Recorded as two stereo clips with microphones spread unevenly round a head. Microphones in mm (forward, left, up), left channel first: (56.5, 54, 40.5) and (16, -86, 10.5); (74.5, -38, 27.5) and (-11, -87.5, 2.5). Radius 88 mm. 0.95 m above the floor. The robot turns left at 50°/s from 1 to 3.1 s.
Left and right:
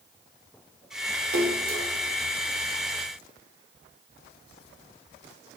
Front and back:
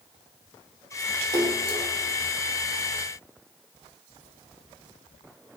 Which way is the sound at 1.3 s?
110° right.